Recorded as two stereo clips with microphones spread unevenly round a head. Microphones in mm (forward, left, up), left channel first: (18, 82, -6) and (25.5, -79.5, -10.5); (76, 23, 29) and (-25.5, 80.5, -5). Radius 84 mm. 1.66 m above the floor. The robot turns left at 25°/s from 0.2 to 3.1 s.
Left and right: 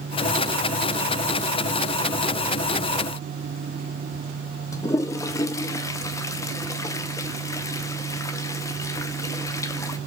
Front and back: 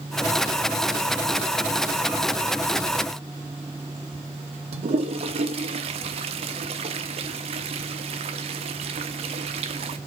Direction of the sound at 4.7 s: 145° left.